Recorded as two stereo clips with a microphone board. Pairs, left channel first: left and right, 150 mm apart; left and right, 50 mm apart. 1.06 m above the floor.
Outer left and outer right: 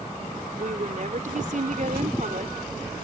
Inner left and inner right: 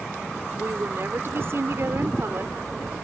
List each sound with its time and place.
0.6 s a woman speaking: 55° right (ahead or behind)